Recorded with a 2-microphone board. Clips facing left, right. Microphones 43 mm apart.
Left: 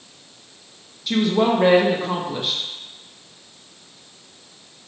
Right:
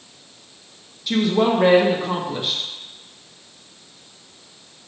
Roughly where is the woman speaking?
Centre.